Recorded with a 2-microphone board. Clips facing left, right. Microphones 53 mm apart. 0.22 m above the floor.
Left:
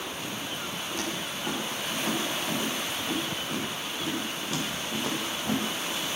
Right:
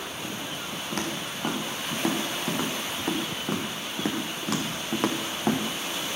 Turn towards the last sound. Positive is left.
turn(degrees=-80)